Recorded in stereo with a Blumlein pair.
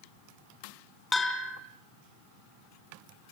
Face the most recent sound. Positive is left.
turn(degrees=10)